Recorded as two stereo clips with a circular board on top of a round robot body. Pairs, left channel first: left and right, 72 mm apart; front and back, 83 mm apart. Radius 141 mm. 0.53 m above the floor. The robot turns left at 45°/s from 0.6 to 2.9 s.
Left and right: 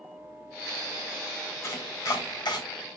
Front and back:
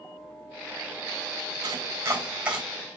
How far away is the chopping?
About 3 m.